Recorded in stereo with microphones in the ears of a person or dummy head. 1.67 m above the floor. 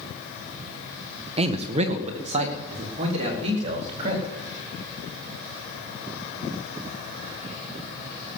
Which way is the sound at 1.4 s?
25° right (ahead or behind).